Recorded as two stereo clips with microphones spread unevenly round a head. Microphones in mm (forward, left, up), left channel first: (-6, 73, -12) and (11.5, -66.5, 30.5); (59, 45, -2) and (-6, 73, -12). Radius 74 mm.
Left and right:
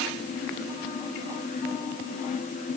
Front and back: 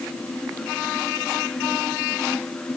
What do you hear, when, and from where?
Only background noise.